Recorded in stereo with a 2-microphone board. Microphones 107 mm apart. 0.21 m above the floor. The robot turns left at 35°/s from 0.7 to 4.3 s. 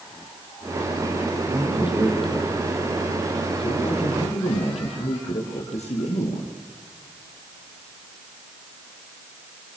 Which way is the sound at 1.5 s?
160° right.